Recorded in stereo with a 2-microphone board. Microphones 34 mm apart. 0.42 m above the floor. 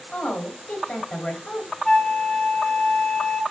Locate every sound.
0.1 s a woman speaking: 45° left (ahead or behind), 2 m
1.9 s a flute: 10° left (ahead or behind), 2.0 m